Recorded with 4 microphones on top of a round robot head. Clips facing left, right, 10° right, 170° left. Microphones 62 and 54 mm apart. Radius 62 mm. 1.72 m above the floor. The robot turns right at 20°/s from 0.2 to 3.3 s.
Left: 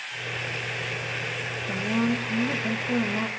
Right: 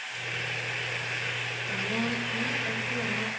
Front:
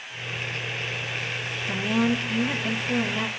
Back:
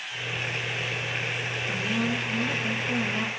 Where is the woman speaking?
45° left, 2.5 m; by 3.3 s 75° left, 2.5 m.